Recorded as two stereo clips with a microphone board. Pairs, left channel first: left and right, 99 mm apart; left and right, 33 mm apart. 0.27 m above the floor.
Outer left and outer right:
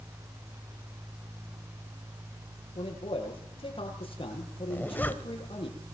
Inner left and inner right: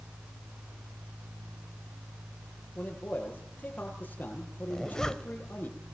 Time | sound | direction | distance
2.8 | a man speaking | 65° left (ahead or behind) | 9 m
4.7 | a zipper | 20° left (ahead or behind) | 1.5 m